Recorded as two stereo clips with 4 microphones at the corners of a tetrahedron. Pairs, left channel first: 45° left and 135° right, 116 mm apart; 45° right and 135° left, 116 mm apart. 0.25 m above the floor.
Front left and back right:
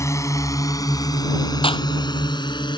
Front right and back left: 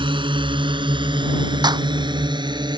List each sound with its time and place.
0.0 s a drone: 105° left; by 2.8 s 90° left
1.6 s a clap: 85° left